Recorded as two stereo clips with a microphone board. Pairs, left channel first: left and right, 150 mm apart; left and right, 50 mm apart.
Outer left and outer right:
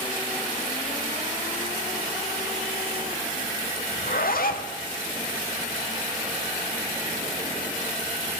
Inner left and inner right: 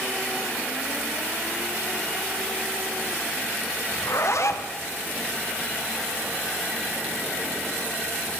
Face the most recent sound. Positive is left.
turn(degrees=75)  # may be behind; listen again after turning